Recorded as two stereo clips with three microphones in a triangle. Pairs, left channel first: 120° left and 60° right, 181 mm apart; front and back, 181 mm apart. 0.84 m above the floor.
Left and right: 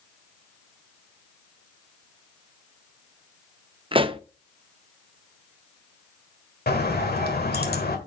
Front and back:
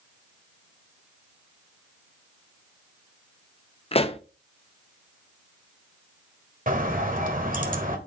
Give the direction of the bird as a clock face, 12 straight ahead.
7 o'clock.